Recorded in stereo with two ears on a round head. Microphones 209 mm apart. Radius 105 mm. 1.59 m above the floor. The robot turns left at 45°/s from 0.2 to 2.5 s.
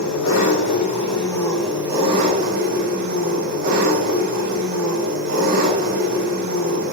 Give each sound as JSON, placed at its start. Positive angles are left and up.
{"t": 0.0, "sound": "an engine running", "azimuth_deg": 65, "distance_m": 3.0}